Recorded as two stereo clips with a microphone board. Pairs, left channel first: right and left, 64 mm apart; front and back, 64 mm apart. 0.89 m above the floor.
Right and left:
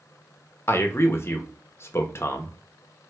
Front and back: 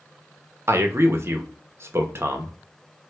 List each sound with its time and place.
0.7 s a man speaking: 135° right, 0.7 m